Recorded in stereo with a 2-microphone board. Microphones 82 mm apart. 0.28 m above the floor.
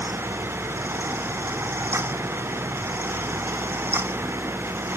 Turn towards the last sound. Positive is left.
No sound to turn to.